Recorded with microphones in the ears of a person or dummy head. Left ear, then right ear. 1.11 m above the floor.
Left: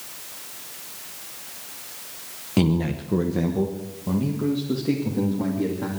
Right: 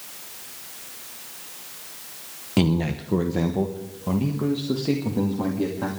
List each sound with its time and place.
2.6 s a man speaking: 10° right (ahead or behind), 0.8 m; by 5.9 s 30° right (ahead or behind), 2.5 m